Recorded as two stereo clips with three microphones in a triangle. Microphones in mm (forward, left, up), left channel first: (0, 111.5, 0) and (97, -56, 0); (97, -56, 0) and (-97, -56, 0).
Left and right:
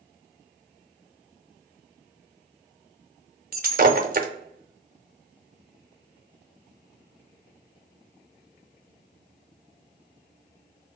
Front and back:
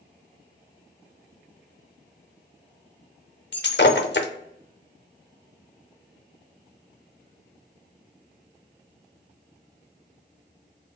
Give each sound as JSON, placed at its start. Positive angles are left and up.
{"t": 3.5, "sound": "breaking glass", "azimuth_deg": -20, "distance_m": 0.5}